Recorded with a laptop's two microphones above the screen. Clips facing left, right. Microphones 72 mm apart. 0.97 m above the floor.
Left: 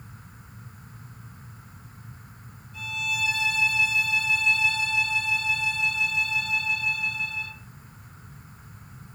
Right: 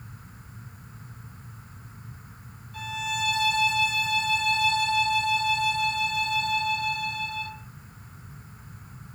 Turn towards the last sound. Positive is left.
turn(degrees=-65)  # may be behind; listen again after turning